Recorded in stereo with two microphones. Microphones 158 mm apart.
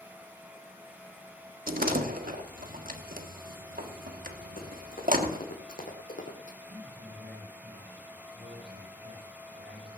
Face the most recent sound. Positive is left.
turn(degrees=-80)